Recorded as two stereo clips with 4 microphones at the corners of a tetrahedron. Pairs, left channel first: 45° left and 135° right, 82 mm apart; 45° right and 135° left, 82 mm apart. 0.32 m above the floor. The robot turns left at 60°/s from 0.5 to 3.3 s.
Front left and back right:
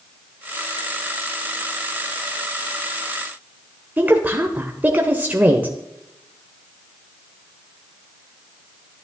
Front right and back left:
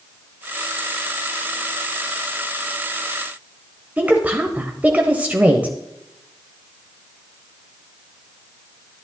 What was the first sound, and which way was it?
A woman speaking, straight behind.